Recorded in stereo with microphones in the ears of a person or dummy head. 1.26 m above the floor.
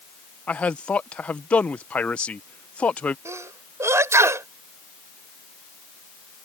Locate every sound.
0.5 s a man speaking: 5° left (ahead or behind)
3.2 s a sneeze: 15° right (ahead or behind)